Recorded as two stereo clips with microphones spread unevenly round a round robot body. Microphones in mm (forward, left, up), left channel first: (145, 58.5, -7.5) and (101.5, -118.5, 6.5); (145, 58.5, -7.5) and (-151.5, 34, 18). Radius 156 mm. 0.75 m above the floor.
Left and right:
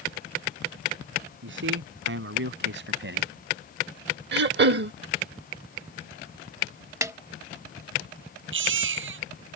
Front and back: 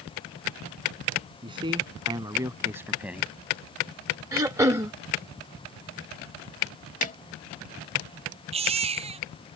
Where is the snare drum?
50° right.